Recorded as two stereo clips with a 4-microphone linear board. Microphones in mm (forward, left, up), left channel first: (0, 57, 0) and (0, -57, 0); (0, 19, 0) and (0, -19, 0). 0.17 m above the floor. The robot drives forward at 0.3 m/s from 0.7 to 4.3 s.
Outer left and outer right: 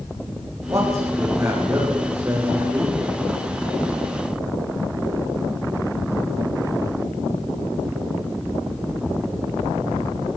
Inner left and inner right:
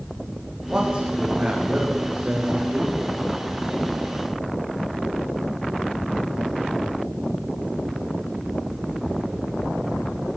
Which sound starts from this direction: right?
A man speaking, at 0.7 s.